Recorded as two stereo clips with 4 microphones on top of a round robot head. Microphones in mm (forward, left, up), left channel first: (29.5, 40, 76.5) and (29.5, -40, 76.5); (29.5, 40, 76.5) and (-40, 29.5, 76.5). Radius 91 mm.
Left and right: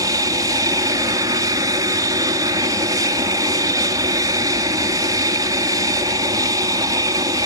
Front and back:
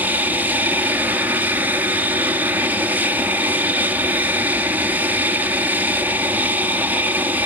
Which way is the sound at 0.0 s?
115° right.